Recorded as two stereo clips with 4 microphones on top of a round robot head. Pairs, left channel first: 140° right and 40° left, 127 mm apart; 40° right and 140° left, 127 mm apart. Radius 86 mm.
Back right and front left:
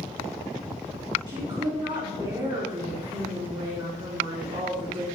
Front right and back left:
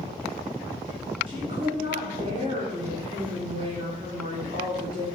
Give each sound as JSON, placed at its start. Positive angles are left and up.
{"t": 1.3, "sound": "a woman speaking", "azimuth_deg": 95, "distance_m": 3.0}